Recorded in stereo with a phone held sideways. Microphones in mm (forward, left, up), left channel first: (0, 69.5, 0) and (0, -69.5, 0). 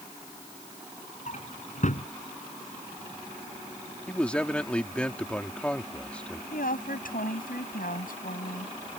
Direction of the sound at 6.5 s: 75° left (ahead or behind).